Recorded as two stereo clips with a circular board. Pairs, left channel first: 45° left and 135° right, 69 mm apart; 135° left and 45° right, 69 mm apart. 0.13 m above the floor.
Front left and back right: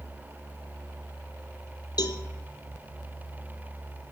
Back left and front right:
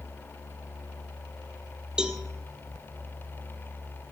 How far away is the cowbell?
About 1.0 m.